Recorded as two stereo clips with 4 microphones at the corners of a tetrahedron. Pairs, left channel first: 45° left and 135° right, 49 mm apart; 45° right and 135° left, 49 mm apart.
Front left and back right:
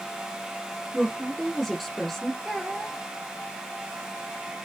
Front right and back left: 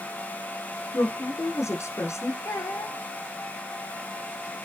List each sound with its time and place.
0.9 s a woman speaking: 45° right, 5 m
2.5 s a child speaking: 65° right, 6.5 m